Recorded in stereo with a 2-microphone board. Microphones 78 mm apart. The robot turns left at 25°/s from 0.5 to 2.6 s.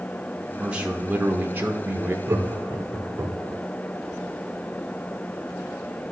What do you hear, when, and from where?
0.6 s a man speaking: 25° right, 0.8 m; by 2.2 s 65° right, 0.8 m
2.3 s laughter: 35° right (ahead or behind), 1.0 m